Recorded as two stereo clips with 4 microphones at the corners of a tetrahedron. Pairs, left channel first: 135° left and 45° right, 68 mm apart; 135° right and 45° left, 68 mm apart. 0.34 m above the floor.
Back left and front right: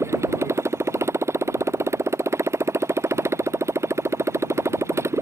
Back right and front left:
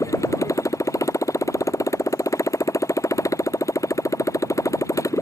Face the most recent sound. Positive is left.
turn(degrees=-95)